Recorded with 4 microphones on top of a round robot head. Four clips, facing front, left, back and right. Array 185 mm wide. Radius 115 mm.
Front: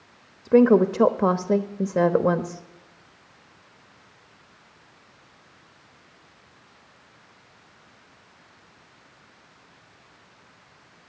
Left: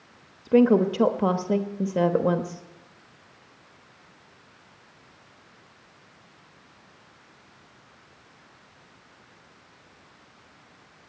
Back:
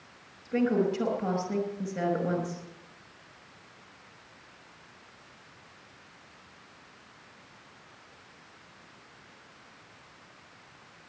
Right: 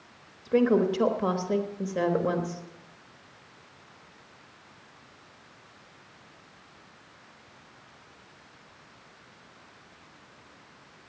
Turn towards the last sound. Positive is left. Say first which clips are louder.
# left 4 dB, front 10 dB
turn(degrees=25)